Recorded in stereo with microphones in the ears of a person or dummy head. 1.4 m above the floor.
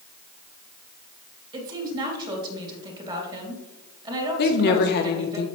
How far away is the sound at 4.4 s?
About 1.4 m.